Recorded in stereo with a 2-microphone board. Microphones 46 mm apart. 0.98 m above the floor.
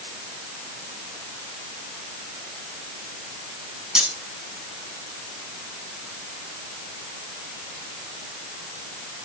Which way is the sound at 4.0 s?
15° right (ahead or behind).